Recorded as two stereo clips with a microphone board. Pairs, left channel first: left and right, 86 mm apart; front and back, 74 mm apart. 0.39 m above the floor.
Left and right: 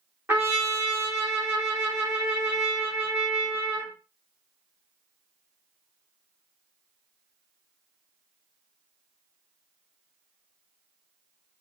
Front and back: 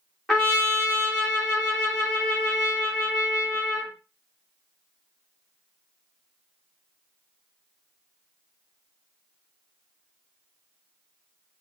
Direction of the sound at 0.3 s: 85° right.